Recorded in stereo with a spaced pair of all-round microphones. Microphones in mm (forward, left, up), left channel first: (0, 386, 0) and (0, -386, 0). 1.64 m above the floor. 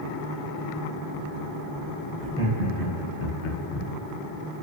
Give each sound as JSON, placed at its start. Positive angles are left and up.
{"t": 2.2, "sound": "laughter", "side_deg": 0, "distance_m": 0.8}